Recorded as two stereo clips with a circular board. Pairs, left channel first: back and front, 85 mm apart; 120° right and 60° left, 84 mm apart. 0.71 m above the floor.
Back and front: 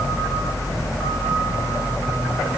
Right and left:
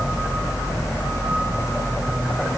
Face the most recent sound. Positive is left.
No sound to turn to.